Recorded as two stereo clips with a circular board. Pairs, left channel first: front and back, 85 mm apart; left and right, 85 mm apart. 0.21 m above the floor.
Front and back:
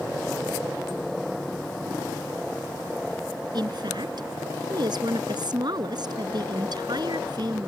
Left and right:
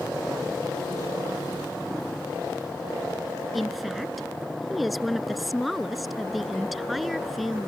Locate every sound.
3.5 s a woman speaking: straight behind